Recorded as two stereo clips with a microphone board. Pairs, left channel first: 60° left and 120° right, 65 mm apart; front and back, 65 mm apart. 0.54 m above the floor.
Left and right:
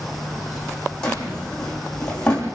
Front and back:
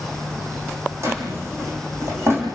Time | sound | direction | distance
1.0 | a drawer | 135° left | 7.5 m